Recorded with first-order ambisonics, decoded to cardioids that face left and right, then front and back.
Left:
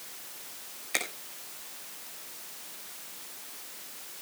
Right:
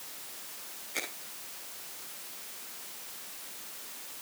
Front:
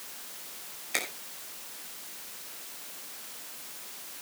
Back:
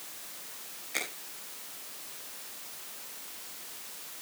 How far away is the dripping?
No dripping in this recording.